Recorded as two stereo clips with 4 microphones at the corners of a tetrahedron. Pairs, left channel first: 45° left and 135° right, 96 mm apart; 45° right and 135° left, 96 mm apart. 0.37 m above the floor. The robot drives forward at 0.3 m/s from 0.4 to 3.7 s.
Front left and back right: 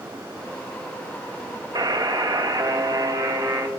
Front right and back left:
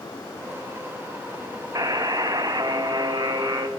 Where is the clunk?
No clunk in this recording.